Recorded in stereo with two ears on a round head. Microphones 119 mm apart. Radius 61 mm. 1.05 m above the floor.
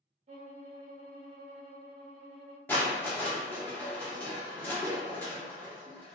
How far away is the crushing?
About 0.6 m.